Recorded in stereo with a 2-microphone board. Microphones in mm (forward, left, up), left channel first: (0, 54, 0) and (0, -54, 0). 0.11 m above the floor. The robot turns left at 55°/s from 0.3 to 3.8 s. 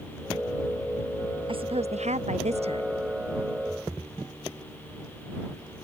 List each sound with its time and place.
1.5 s a woman speaking: 50° right; by 2.9 s 130° right